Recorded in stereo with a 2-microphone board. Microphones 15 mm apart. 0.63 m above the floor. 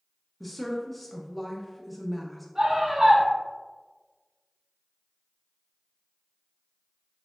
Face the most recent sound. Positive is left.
turn(degrees=-55)  # may be behind; listen again after turning